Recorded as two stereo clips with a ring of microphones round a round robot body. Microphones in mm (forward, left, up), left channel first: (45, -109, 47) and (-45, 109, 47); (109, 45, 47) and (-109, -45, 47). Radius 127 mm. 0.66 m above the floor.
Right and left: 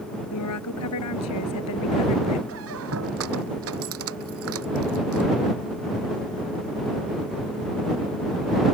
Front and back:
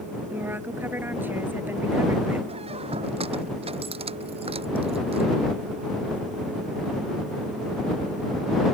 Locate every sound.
0.3 s a woman speaking: 75° right
2.5 s a squeak: 135° left